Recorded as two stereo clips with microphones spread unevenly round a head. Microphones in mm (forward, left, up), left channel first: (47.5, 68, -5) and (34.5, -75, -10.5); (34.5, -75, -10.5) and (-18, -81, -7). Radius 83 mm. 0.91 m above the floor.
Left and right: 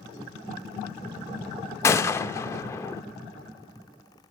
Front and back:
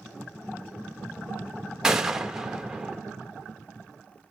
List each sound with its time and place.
1.8 s a gunshot: 130° left, 0.5 m